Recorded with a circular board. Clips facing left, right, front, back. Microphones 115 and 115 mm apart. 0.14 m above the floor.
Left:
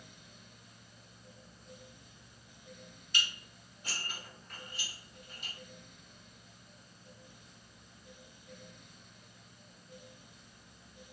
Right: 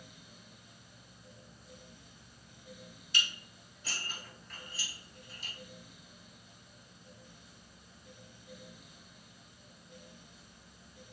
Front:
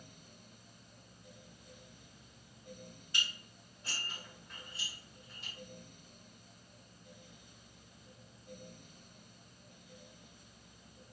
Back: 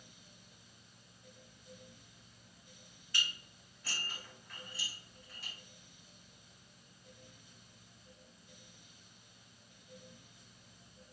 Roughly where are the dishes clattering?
Ahead left.